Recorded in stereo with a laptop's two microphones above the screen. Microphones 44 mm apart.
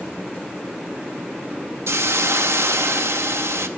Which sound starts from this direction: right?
A hiss, at 1.9 s.